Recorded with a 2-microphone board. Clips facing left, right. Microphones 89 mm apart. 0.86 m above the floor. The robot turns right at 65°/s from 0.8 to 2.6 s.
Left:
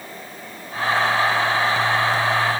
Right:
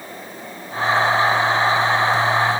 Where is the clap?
No clap in this recording.